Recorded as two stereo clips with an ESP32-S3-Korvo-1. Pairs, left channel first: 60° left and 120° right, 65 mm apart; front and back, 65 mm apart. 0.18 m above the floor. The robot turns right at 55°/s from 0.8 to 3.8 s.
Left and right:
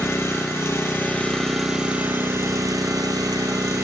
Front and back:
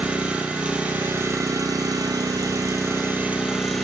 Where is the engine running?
110° left, 1.6 m; by 3.8 s 85° right, 1.6 m.